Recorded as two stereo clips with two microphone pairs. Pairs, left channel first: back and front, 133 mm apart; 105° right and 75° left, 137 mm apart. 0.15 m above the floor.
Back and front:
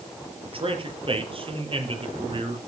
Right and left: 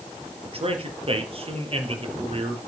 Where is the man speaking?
40° left, 3.5 m.